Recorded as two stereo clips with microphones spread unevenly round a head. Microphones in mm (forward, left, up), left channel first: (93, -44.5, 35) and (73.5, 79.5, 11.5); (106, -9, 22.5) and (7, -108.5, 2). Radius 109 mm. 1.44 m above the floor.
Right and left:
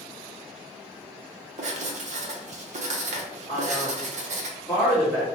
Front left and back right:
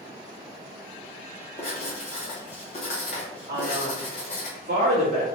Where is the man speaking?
155° right, 1.7 m.